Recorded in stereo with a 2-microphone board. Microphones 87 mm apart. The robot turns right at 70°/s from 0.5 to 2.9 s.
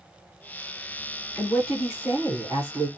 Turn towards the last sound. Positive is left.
turn(degrees=-105)